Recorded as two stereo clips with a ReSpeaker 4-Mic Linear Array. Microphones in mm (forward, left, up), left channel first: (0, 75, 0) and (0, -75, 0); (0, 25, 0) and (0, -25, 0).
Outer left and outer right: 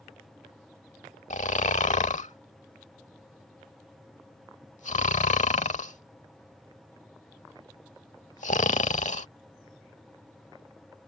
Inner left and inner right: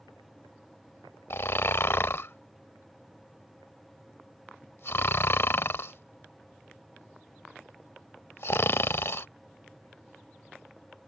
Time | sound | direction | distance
1.3 | snoring | 55° left (ahead or behind) | ?